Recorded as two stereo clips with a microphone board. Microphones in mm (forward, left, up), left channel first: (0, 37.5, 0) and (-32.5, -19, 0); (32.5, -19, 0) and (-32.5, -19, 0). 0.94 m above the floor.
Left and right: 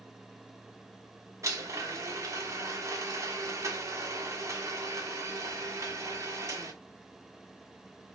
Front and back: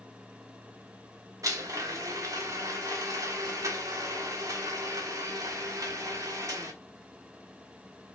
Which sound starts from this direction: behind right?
A blender, at 1.4 s.